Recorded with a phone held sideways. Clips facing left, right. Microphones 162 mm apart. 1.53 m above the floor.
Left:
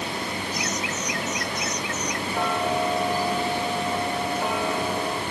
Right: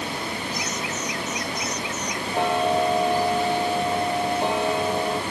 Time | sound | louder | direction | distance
0.5 | laughter | even | 80° left | ?
2.3 | ticking | right 4 dB | 25° right (ahead or behind) | ?